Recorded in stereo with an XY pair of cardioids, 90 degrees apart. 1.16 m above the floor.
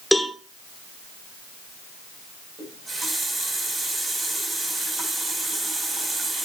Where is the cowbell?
5° right, 1.5 m.